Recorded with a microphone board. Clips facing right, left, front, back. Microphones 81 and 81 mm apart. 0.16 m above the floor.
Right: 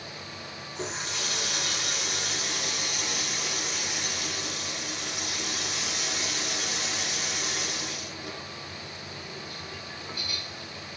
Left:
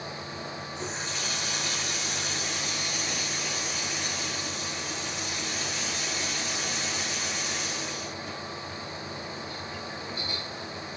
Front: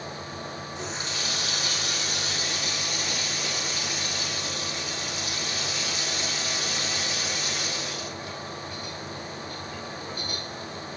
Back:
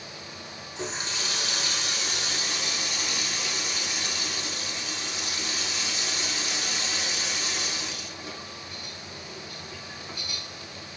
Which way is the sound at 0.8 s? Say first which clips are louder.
Right 3 dB, back 4 dB; 110° right.